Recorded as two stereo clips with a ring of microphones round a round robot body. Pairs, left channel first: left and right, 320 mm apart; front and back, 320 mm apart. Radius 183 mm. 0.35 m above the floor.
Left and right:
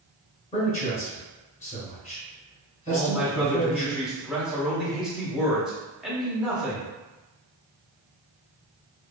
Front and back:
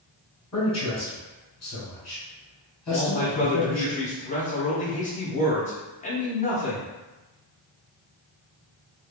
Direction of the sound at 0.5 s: 60° left.